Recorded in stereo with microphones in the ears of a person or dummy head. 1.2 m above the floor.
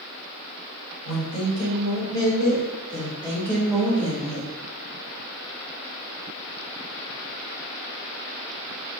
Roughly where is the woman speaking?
Left.